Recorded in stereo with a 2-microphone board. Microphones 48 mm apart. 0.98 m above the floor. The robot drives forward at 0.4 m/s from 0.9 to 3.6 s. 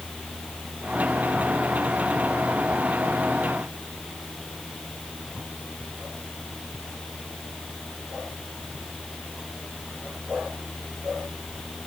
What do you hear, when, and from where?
Only background noise.